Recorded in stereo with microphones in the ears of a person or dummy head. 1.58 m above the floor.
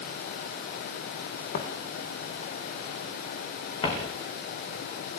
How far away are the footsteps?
About 4 m.